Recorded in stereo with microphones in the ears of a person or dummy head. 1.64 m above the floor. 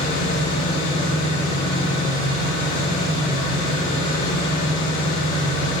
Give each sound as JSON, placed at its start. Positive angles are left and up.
{"t": 0.0, "sound": "an engine running", "side_deg": 30, "distance_m": 6.0}